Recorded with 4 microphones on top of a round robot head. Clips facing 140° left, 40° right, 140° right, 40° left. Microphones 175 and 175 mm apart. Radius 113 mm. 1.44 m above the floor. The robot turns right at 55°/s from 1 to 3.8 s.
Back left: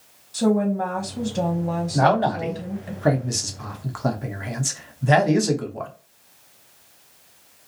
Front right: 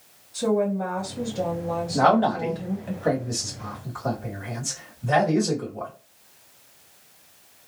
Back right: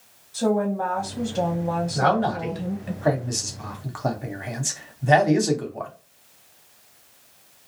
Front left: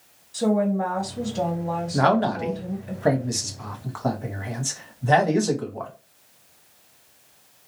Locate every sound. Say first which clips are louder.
0.3 s a woman speaking: back left 2 dB, front left 1 dB; 115° left, 1.2 m; by 2.9 s 140° right, 1.2 m
1.9 s a man speaking: even, front left 3 dB; 45° left, 1.0 m; by 5.9 s 150° left, 1.0 m